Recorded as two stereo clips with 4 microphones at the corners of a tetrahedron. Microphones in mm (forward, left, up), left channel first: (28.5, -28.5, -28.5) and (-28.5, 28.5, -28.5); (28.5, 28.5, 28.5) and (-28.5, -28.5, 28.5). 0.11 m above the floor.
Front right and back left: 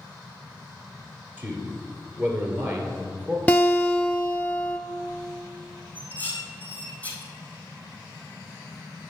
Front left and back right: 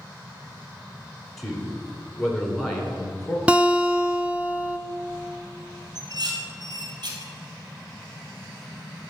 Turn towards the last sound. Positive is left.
turn(degrees=-115)